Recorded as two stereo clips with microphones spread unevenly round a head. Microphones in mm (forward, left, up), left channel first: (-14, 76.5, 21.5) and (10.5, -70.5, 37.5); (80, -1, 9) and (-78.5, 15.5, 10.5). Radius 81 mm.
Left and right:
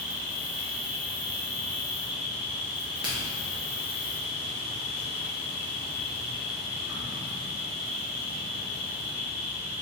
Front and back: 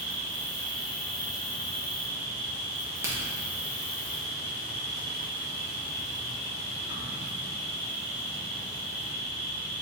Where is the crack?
140° right, 0.8 m.